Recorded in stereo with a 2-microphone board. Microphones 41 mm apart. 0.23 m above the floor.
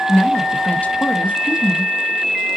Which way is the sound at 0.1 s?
35° left (ahead or behind).